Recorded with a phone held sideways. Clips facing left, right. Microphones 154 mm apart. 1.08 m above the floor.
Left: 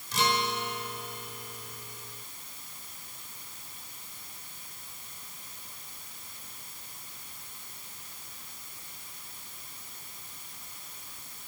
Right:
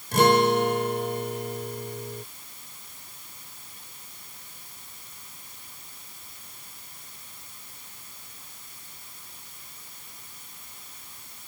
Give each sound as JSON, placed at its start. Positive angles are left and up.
{"t": 0.1, "sound": "a guitar", "side_deg": -55}